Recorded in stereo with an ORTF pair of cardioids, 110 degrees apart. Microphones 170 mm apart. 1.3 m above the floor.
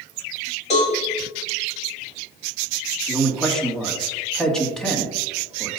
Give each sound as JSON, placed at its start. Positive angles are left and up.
{"t": 0.7, "sound": "a cowbell", "azimuth_deg": 40, "distance_m": 3.5}
{"t": 3.1, "sound": "a man speaking", "azimuth_deg": 5, "distance_m": 2.5}